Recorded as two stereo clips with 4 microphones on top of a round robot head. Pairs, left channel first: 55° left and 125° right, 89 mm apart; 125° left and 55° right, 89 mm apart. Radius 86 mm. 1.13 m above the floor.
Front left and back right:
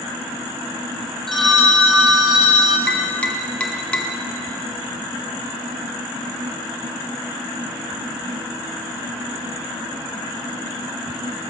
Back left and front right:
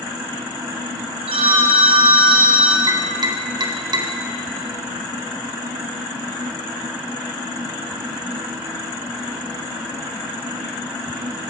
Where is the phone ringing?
35° right, 1.5 m.